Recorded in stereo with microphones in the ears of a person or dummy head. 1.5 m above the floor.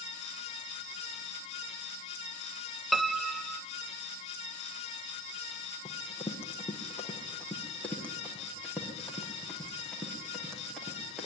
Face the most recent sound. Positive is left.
turn(degrees=5)  # may be behind; listen again after turning